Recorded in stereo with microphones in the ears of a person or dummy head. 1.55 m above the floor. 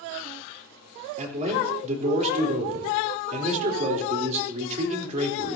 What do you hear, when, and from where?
1.2 s a man speaking: 40° right (ahead or behind), 3.5 m